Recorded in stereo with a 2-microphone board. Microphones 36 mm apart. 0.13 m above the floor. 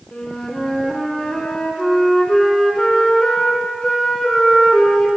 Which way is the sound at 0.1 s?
20° left (ahead or behind).